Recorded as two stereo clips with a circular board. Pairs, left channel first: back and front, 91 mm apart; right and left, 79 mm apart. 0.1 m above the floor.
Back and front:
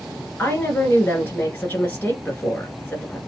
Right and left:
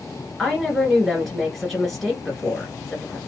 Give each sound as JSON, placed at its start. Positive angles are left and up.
{"t": 0.4, "sound": "a woman speaking", "azimuth_deg": -175, "distance_m": 1.7}